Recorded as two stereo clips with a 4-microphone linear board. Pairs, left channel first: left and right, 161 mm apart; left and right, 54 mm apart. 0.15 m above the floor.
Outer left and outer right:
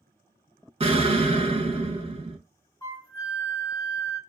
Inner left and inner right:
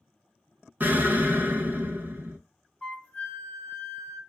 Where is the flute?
20° left (ahead or behind), 0.9 m.